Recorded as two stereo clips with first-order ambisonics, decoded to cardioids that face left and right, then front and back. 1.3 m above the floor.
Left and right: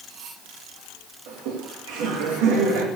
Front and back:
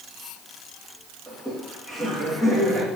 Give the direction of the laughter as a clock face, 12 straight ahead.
3 o'clock.